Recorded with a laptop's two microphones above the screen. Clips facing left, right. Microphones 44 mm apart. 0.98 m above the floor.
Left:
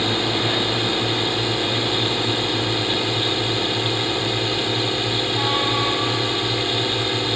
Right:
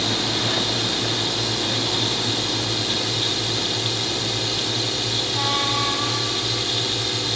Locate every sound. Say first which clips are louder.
0.0 s a drone: left 3 dB; 20° left (ahead or behind)